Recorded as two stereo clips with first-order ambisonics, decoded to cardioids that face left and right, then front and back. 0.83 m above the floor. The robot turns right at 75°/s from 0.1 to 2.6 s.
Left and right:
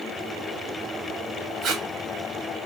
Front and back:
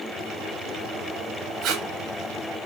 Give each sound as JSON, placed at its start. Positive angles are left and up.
{"t": 1.6, "sound": "tape being pulled", "azimuth_deg": -150, "distance_m": 1.3}